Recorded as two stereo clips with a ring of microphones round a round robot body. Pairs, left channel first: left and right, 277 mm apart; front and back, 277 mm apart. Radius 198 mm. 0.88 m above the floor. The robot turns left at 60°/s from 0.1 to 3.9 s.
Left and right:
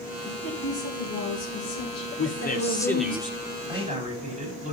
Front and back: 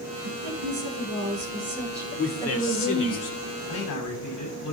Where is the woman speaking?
155° right, 9.5 m; by 3.2 s 30° left, 9.5 m.